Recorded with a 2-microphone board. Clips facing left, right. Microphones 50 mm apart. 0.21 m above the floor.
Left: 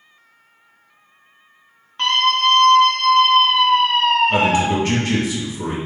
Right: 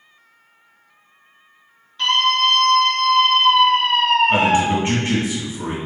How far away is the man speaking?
About 2.0 m.